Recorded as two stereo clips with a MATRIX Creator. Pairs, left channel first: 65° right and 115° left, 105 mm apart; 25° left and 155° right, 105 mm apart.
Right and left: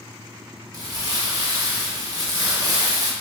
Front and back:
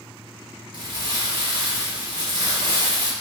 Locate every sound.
0.7 s crumpling: 165° left, 0.7 m